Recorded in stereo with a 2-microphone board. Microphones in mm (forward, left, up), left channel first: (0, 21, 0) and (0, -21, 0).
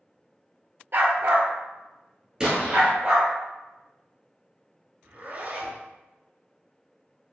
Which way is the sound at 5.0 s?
40° right (ahead or behind).